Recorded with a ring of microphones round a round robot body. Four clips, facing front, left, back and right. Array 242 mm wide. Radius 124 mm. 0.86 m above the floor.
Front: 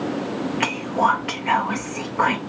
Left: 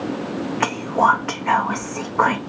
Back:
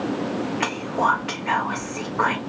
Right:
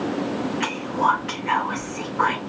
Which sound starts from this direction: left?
Whispering, at 0.6 s.